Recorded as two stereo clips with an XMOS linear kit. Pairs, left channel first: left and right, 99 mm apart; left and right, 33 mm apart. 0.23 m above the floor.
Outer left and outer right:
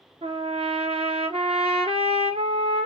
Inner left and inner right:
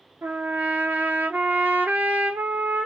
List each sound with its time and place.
0.2 s a trumpet: 80° right, 0.9 m